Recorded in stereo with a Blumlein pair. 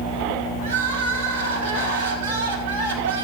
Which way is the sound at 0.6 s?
55° right.